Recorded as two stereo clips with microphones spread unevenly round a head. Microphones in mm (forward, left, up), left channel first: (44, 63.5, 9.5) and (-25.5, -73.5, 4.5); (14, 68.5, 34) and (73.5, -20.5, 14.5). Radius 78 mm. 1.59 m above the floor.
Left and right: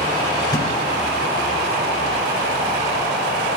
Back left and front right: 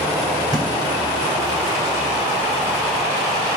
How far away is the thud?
About 2.5 m.